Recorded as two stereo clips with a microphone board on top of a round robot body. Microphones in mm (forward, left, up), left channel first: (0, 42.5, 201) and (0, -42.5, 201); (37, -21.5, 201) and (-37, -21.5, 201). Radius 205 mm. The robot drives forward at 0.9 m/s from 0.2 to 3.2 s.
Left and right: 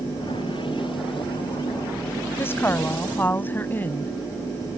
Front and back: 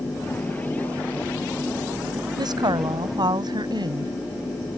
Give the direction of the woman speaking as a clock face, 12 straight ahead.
7 o'clock.